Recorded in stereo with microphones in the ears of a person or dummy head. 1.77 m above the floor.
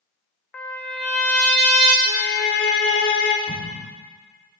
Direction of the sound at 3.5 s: 10° left (ahead or behind).